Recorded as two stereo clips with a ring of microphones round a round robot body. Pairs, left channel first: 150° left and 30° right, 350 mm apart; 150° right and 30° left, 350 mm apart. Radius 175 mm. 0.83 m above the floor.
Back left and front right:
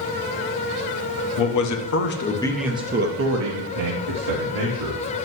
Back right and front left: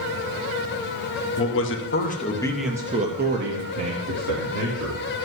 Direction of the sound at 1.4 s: 165° left.